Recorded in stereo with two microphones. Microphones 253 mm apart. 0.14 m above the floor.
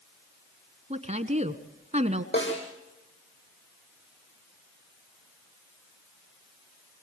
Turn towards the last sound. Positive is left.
turn(degrees=45)  # may be behind; listen again after turning